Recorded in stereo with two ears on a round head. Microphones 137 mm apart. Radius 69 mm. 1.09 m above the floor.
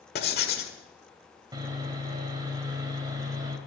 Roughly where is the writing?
Left.